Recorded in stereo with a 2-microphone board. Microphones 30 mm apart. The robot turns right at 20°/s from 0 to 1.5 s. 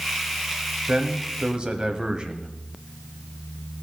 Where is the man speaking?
35° right (ahead or behind), 1.2 m; by 2.5 s 30° right (ahead or behind), 1.2 m.